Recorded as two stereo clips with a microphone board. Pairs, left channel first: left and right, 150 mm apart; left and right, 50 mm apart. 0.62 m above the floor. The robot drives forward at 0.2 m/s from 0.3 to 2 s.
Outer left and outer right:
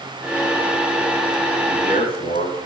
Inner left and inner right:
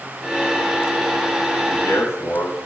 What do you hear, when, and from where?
1.7 s a man speaking: 75° left (ahead or behind), 6 m